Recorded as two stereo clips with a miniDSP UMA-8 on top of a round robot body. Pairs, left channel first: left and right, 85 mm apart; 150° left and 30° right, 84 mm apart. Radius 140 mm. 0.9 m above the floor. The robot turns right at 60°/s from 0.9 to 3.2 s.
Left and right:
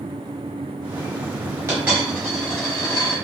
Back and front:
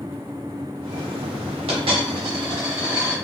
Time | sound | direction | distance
1.7 | a dropped coin | 30° right | 1.0 m